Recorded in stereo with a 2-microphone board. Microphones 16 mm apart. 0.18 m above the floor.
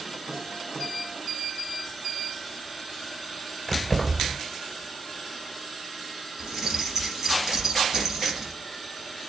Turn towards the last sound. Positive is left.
turn(degrees=-40)  # may be behind; listen again after turning